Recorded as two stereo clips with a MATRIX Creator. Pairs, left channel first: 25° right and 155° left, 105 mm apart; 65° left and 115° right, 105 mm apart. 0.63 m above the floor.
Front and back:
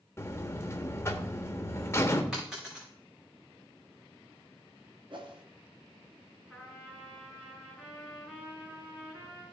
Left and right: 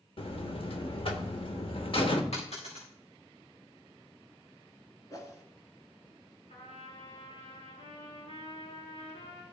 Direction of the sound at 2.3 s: 75° left.